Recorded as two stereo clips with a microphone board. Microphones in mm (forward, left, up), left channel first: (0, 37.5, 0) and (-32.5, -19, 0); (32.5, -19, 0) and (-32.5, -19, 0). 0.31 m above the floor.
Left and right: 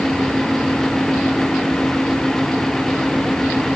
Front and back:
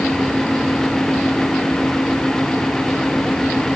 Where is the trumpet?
No trumpet in this recording.